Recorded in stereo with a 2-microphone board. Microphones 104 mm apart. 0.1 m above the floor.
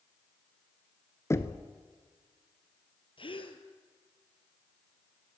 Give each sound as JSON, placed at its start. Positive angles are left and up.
{"t": 1.3, "sound": "knocking", "side_deg": 25, "distance_m": 1.0}
{"t": 3.2, "sound": "a gasp", "side_deg": 55, "distance_m": 1.6}